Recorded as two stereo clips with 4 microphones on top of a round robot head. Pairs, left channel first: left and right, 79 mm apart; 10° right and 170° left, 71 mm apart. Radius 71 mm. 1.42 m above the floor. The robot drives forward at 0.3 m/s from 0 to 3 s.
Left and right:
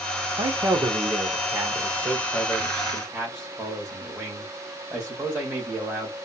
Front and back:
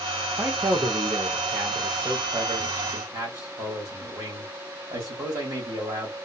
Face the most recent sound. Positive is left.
turn(degrees=-160)